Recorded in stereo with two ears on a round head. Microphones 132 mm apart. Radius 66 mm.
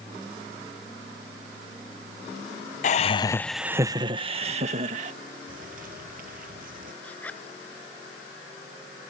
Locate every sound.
2.8 s laughter: 55° left (ahead or behind); by 5.1 s 55° right (ahead or behind)
5.5 s a bird: 65° right (ahead or behind)
7.0 s a zipper: 10° left (ahead or behind)